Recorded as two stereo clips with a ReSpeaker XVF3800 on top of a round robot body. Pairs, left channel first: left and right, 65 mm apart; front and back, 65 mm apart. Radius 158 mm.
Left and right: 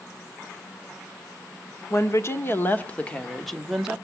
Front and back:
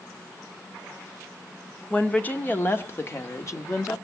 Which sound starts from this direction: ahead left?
A woman speaking, at 1.9 s.